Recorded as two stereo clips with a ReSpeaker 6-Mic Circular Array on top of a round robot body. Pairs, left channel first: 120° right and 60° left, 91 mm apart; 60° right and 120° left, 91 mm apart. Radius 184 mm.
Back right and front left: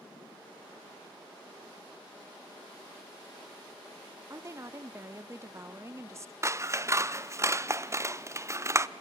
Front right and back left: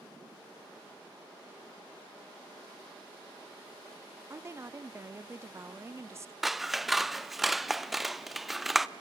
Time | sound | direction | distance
4.3 | a woman speaking | 90° left | 0.9 m
6.4 | scissors | 35° left | 0.6 m